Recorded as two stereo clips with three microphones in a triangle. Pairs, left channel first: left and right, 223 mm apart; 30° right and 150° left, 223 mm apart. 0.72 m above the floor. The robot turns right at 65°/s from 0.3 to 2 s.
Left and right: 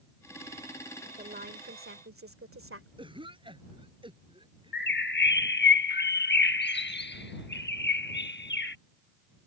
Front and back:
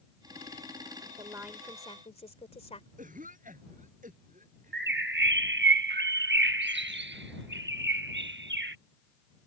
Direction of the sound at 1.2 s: 145° right.